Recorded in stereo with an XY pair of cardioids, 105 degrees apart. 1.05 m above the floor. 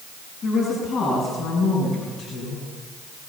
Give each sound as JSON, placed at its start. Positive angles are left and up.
{"t": 0.4, "sound": "a woman speaking", "azimuth_deg": 60, "distance_m": 8.5}